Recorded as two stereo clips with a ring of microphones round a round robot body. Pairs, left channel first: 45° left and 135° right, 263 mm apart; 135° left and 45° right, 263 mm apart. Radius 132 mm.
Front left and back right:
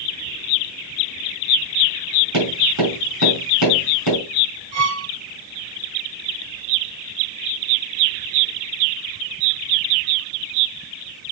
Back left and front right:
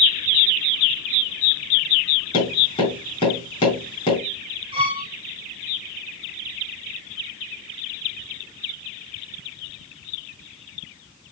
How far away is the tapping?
About 7 m.